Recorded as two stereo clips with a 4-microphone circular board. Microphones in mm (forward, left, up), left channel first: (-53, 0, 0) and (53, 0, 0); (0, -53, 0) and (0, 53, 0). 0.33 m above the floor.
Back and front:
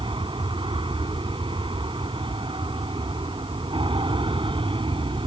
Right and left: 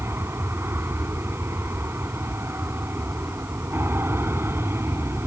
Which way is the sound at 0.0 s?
25° left.